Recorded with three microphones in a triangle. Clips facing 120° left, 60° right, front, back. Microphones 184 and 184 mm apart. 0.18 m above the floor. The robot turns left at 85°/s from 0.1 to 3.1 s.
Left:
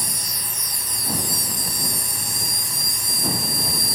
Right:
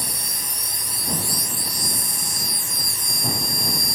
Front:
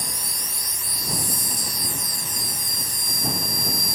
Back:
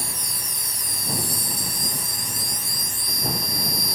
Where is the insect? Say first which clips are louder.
Even, even; 70° right; by 4.0 s 35° left.